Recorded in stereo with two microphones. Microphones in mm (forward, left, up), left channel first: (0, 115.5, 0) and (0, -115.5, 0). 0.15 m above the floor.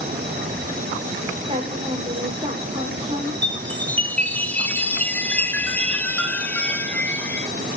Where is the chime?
5° left (ahead or behind), 1.3 m.